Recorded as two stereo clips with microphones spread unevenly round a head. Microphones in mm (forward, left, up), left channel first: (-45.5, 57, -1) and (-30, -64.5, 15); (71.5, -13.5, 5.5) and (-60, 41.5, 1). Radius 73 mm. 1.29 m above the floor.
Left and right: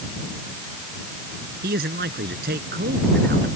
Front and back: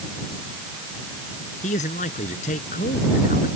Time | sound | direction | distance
1.6 | a man speaking | 70° right | ?